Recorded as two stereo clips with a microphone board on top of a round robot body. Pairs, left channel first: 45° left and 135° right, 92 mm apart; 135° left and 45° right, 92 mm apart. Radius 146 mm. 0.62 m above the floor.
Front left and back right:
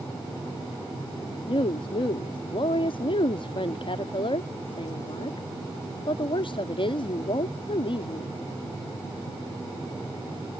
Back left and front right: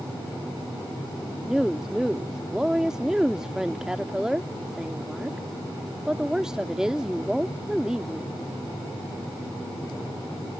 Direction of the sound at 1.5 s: 40° left.